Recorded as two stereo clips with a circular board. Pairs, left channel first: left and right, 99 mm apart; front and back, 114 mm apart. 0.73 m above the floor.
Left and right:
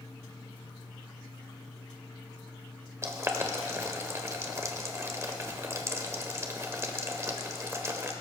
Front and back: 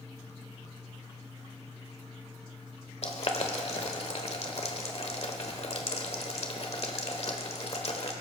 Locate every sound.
3.0 s boiling: 30° right, 1.2 m